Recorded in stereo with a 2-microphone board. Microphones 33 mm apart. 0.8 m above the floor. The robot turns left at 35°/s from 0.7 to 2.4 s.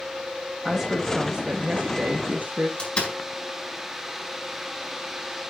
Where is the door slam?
30° left (ahead or behind), 4 m.